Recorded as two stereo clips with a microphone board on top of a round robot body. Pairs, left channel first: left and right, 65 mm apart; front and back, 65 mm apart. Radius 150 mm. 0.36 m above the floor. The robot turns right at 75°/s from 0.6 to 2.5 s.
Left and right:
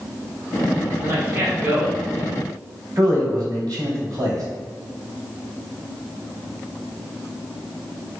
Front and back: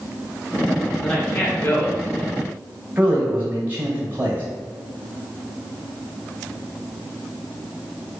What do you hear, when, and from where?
1.0 s a man speaking: 80° right, 1.7 m; by 2.5 s 30° left, 1.7 m
3.0 s a man speaking: 120° right, 1.8 m